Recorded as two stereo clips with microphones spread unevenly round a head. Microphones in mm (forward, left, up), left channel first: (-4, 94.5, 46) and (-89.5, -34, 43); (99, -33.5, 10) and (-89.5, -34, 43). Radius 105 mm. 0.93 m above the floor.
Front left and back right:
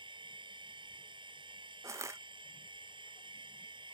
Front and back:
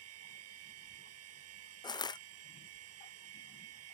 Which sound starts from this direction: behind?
A machine running, at 0.0 s.